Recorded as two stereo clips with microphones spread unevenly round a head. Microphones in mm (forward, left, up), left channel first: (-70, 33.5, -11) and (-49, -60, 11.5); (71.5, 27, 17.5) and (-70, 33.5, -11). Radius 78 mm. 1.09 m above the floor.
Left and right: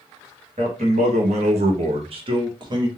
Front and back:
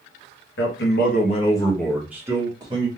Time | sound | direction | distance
0.6 | a man speaking | 25° right | 1.1 m